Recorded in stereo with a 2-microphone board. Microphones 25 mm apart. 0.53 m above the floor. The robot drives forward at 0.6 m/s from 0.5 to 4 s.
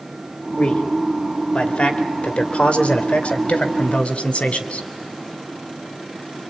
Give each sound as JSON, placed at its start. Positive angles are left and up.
{"t": 0.6, "sound": "a man speaking", "side_deg": 45, "distance_m": 2.5}